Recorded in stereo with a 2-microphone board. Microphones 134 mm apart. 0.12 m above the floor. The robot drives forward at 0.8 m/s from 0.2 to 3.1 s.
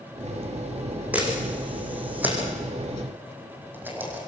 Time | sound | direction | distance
1.1 | a camera shutter | 10° right (ahead or behind) | 7 m